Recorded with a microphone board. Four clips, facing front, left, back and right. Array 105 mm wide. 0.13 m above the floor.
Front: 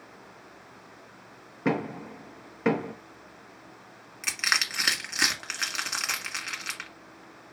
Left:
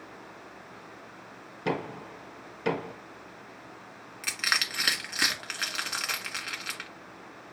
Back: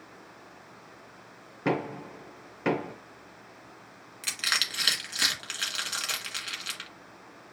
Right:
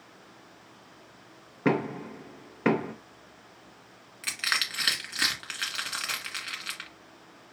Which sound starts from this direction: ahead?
Crushing, at 4.2 s.